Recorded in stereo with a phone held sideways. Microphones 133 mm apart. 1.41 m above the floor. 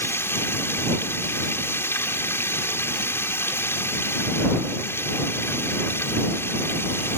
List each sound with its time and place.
0.0 s running water: 15° left (ahead or behind)